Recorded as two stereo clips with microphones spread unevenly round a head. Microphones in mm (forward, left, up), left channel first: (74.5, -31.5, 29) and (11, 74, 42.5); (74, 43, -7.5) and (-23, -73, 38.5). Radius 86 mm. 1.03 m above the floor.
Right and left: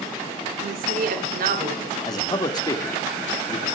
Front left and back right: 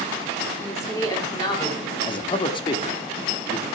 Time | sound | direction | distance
0.6 | a woman speaking | 125° left | 3.5 m
2.1 | a man speaking | 5° right | 2 m